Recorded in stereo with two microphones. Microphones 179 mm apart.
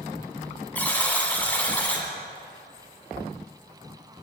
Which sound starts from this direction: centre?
A buzzer, at 0.8 s.